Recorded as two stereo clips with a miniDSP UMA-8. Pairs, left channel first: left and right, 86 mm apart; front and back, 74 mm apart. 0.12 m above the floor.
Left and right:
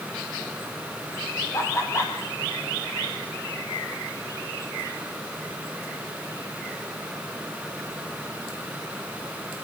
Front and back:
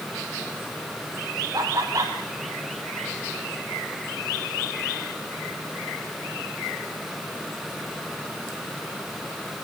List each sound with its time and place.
1.5 s laughter: 140° left, 3.5 m